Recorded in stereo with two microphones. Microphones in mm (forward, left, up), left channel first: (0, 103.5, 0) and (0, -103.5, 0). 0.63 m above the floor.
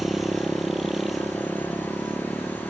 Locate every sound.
0.0 s a motorcycle: centre (ahead or behind)